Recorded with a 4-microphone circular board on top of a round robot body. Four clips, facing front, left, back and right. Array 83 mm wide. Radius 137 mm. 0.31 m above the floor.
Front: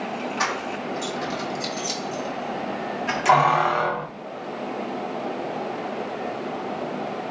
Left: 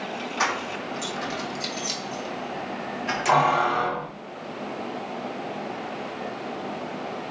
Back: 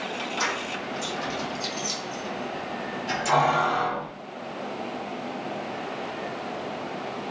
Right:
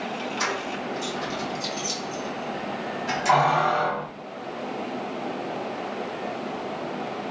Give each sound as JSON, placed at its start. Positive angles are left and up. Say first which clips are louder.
{"t": 0.4, "sound": "keys jangling", "louder": "left 4 dB, front 3 dB", "azimuth_deg": 60, "distance_m": 2.0}